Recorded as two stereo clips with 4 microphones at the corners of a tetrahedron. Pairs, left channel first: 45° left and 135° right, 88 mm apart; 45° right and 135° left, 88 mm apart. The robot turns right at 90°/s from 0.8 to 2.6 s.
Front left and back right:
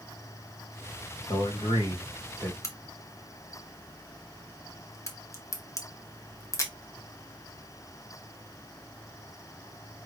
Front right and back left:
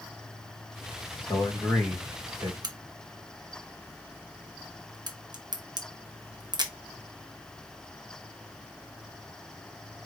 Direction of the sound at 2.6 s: 100° left.